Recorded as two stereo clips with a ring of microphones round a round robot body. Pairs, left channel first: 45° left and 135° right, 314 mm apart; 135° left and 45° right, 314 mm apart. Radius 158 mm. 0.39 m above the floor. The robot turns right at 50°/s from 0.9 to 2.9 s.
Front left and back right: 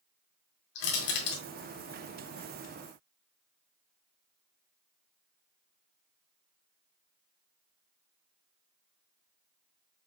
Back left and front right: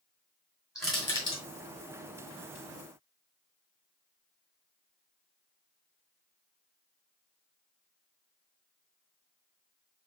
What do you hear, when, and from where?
0.8 s crushing: 45° left, 2 m; by 1.4 s 70° left, 2 m